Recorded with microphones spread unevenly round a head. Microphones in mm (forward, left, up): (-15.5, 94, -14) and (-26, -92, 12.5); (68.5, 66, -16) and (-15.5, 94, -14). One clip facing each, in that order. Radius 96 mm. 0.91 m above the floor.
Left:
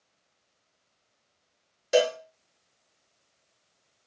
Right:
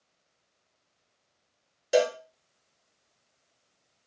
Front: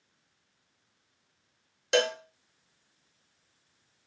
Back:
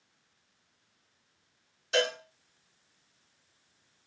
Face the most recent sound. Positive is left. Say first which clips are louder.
# left 1 dB, front 3 dB
turn(degrees=-5)